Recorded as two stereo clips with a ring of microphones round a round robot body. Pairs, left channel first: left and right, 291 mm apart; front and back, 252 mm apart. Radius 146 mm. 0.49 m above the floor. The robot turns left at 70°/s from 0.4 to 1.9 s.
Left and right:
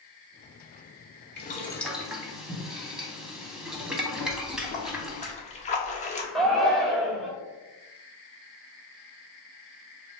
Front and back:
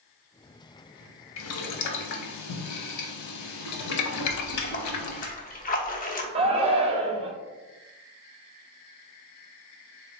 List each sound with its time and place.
1.4 s boiling: 35° left, 0.5 m; by 5.3 s straight ahead, 0.5 m
4.3 s a splash: 35° left, 0.6 m
6.3 s a shout: 175° left, 0.6 m